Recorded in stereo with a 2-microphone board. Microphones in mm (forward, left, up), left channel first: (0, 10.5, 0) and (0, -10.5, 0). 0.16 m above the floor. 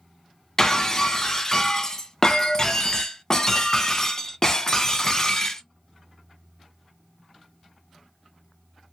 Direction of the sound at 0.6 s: 25° left (ahead or behind).